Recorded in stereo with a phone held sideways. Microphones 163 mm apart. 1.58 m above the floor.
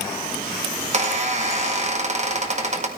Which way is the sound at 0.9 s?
45° right (ahead or behind).